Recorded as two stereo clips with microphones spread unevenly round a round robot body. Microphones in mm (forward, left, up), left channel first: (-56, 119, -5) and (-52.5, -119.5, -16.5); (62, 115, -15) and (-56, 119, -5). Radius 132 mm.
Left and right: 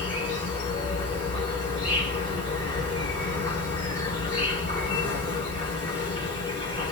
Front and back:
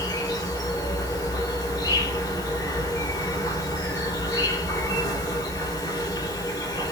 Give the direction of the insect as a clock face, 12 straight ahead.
11 o'clock.